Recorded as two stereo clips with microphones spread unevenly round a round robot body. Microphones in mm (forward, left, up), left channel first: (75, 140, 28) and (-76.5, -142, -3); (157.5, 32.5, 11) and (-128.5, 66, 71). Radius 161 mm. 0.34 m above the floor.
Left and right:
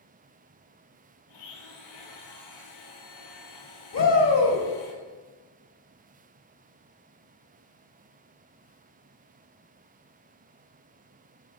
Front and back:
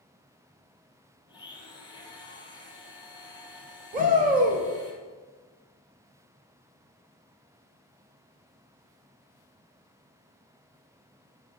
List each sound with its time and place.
1.3 s a blender: 70° left, 1.7 m
3.9 s a shout: 110° left, 1.7 m